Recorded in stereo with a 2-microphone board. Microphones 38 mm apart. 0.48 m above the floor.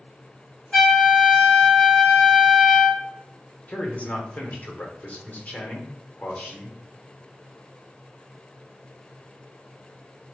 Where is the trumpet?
15° left (ahead or behind), 1.8 m.